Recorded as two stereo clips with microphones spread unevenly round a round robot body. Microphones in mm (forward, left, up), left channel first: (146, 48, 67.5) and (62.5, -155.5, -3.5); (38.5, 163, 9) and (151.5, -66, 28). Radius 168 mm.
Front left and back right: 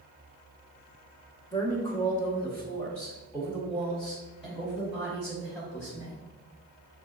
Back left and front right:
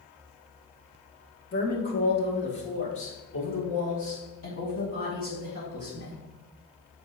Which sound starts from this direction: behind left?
A woman speaking, at 1.5 s.